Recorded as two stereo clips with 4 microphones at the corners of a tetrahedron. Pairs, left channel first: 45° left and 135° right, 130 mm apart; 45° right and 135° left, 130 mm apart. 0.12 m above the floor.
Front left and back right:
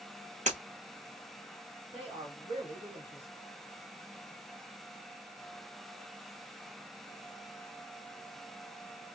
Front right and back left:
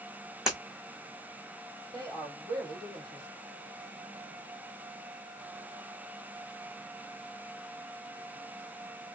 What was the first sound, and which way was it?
Breaking glass, 140° right.